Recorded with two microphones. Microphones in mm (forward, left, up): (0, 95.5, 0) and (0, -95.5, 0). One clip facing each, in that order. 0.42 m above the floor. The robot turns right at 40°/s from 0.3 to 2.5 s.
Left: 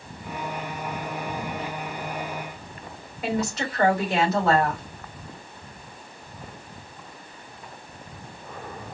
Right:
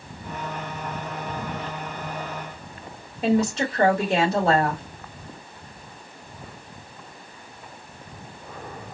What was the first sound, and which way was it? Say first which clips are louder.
A woman speaking: right 6 dB; 30° right (ahead or behind).